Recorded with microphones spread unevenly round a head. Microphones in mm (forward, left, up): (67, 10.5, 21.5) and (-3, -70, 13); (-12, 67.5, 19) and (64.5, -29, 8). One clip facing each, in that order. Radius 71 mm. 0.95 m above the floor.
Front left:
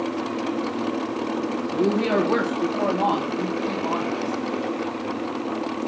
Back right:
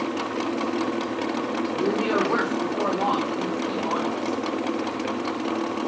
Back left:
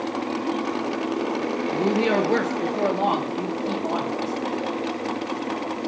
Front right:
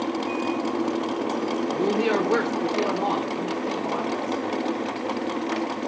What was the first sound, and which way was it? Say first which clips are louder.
A woman speaking: front left 3 dB, back left 2 dB; 70° left.